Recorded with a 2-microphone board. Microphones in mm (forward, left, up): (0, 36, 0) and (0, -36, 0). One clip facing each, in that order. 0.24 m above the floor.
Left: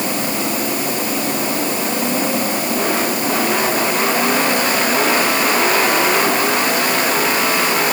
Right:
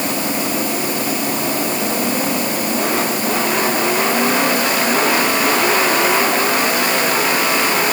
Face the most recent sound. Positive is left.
No sound to turn to.